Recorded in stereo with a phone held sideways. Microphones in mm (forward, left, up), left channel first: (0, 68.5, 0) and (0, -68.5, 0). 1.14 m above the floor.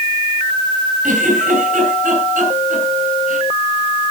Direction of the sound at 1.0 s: 70° right (ahead or behind).